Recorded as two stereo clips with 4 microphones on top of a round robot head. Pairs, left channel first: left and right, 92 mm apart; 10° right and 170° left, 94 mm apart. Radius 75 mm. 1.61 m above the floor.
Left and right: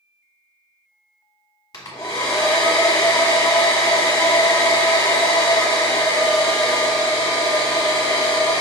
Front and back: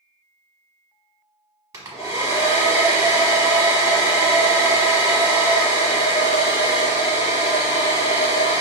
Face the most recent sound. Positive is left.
turn(degrees=130)